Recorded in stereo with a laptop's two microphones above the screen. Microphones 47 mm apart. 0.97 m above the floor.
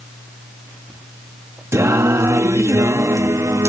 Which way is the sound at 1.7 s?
80° right.